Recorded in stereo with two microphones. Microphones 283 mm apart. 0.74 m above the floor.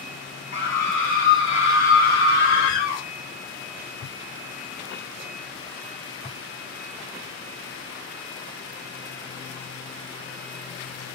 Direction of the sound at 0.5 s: 40° left (ahead or behind).